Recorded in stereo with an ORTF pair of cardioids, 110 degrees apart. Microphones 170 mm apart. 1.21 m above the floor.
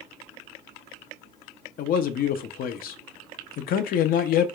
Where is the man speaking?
60° left, 0.6 m.